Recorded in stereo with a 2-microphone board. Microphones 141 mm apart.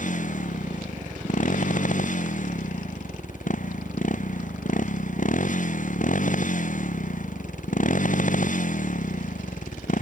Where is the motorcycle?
60° left (ahead or behind); by 10.0 s 65° left (ahead or behind).